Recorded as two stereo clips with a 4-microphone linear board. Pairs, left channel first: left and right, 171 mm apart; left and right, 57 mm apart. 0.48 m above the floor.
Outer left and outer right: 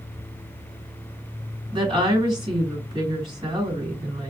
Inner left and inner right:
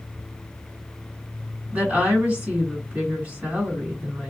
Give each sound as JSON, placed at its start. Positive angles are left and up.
{"t": 1.7, "sound": "a woman speaking", "side_deg": -30, "distance_m": 1.7}